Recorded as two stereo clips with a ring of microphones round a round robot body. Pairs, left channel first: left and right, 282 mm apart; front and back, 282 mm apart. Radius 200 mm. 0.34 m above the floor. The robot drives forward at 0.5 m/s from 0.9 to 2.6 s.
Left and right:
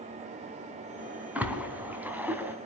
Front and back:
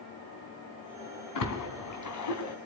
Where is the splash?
5° right, 4 m.